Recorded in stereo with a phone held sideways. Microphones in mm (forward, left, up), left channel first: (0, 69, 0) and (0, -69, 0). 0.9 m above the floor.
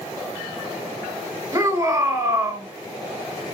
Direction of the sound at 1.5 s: 30° right (ahead or behind).